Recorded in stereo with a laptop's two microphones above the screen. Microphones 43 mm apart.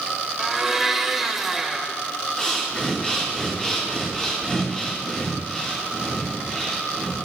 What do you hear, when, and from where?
0.4 s a blender: 5° right (ahead or behind), 0.8 m
2.4 s breathing: 30° left (ahead or behind), 2 m